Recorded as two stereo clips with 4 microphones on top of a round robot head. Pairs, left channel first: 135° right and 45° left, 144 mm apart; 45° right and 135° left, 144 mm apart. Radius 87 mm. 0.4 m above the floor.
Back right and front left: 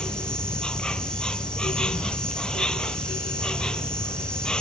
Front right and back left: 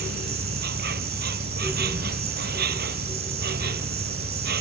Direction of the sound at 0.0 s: 140° left.